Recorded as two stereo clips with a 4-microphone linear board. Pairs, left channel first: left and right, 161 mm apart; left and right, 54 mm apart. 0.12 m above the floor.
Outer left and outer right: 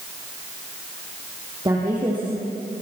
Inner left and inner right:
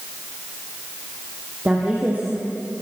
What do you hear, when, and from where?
1.6 s a woman speaking: 25° right (ahead or behind), 5.5 m; by 2.7 s 35° right (ahead or behind), 5.5 m